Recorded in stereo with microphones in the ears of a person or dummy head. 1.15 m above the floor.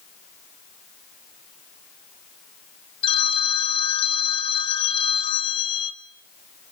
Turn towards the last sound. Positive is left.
turn(degrees=35)  # may be behind; listen again after turning